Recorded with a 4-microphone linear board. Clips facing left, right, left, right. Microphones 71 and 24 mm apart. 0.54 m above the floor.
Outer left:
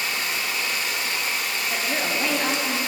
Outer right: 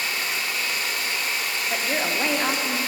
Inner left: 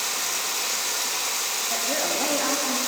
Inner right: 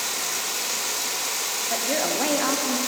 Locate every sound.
0.0 s running water: 5° right (ahead or behind), 1.8 m
1.7 s a woman speaking: 25° right (ahead or behind), 0.7 m